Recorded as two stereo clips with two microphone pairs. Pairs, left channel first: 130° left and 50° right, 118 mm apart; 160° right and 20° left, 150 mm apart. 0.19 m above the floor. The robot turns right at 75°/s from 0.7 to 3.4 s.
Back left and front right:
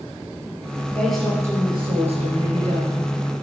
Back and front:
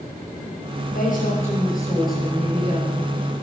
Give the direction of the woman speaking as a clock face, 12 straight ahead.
5 o'clock.